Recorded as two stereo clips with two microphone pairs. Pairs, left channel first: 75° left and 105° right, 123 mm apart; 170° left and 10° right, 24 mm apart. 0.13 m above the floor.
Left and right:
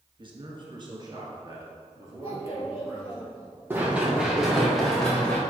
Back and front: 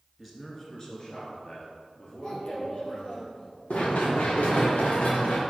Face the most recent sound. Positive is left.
turn(degrees=160)